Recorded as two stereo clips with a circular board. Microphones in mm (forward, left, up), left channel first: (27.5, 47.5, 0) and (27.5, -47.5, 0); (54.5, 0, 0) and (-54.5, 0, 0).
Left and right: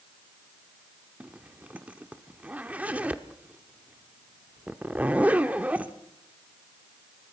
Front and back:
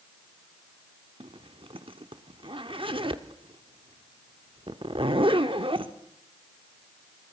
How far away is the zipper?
About 1.0 m.